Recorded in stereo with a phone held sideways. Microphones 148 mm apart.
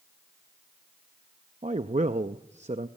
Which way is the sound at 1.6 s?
50° right (ahead or behind).